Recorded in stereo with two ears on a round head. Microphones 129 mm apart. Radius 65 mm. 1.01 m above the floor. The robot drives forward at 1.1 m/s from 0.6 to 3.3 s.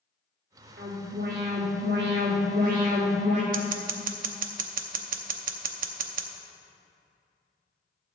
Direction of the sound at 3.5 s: 65° right (ahead or behind).